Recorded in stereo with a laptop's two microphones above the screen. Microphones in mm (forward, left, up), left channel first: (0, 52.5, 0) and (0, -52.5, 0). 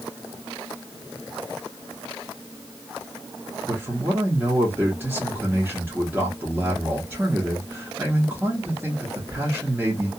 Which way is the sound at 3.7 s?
20° right (ahead or behind).